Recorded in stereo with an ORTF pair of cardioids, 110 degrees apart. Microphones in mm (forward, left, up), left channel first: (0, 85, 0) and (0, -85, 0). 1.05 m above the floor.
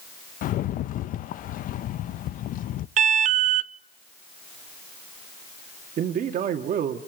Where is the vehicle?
No vehicle in this recording.